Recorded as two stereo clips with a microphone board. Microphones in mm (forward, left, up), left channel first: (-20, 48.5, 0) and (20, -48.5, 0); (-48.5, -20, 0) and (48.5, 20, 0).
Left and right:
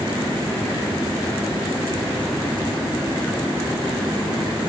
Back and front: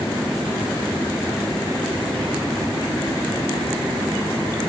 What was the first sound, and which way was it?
Only background noise.